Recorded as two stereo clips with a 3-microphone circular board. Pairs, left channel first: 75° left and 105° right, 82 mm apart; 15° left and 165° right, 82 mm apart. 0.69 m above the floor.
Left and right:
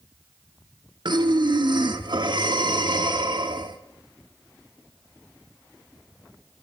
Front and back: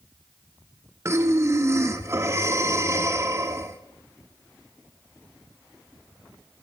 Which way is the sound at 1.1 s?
115° right.